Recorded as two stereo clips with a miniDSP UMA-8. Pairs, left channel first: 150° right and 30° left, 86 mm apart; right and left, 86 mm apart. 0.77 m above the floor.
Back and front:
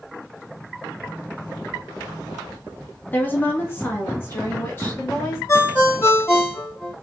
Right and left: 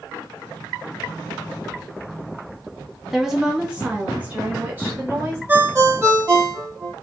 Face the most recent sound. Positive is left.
turn(degrees=150)